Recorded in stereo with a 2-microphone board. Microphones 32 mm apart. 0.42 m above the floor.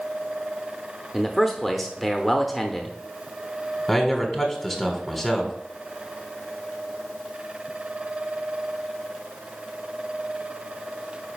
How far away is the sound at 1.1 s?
About 0.8 m.